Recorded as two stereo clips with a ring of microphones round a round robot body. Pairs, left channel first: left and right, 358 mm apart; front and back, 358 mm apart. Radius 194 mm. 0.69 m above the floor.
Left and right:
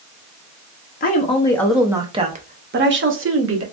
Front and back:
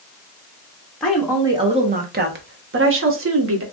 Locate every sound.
1.0 s a woman speaking: 85° left, 0.8 m; by 3.6 s 135° right, 1.3 m